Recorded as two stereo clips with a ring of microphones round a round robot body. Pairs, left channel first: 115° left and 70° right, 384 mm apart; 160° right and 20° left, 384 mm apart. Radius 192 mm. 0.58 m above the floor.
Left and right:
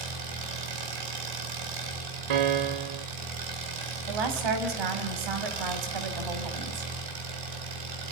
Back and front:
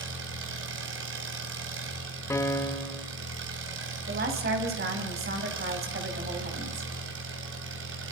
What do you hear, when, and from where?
0.0 s an engine running: 35° right, 3.5 m
2.3 s a piano: 75° right, 1.5 m
4.1 s a woman speaking: 45° right, 4 m